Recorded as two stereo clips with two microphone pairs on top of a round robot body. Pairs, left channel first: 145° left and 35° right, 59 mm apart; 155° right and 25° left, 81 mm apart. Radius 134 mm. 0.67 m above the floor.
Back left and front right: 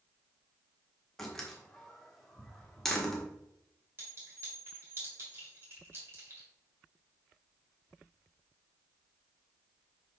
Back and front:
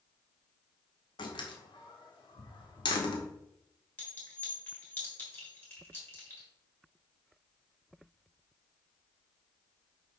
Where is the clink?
90° right, 3.5 m.